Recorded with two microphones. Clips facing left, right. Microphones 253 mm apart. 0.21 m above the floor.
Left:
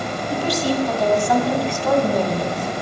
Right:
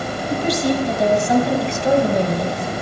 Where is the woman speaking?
20° right (ahead or behind), 1.7 m; by 2.7 s 25° right (ahead or behind), 1.7 m.